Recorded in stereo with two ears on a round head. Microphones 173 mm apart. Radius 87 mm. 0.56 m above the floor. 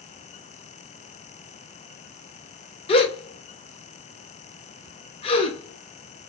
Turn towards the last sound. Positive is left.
turn(degrees=30)  # may be behind; listen again after turning